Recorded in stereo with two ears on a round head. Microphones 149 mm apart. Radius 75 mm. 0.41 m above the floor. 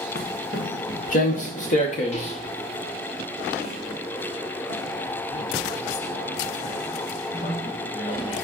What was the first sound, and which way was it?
Footsteps, 65° left (ahead or behind).